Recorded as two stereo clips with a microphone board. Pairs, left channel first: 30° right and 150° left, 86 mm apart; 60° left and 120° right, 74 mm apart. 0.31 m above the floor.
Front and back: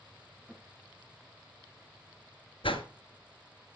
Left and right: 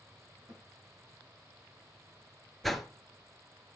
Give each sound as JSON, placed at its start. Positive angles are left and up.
{"t": 0.5, "sound": "a snare drum", "azimuth_deg": -135, "distance_m": 4.5}
{"t": 2.6, "sound": "a whoosh", "azimuth_deg": -30, "distance_m": 1.0}